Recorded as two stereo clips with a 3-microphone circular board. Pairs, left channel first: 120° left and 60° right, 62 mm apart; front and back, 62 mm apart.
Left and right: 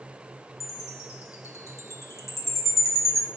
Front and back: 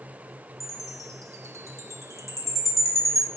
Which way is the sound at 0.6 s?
155° left.